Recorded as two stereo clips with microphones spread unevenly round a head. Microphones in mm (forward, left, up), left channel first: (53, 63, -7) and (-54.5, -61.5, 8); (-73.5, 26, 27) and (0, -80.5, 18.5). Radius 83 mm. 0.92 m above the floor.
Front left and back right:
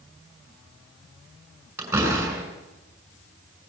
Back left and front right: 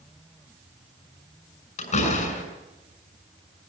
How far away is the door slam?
About 6.5 m.